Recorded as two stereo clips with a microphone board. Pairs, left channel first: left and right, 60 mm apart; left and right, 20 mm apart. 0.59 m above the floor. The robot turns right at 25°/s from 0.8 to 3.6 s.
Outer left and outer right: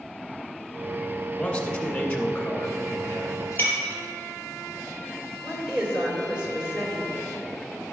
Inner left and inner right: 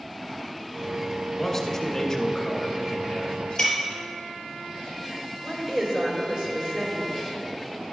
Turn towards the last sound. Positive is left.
turn(degrees=-20)  # may be behind; listen again after turning